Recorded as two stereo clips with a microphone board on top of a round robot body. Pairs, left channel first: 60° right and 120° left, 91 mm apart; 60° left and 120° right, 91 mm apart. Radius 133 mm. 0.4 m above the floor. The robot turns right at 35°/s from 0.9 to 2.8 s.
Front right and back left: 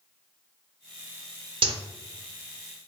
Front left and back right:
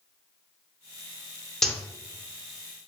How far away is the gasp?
No gasp in this recording.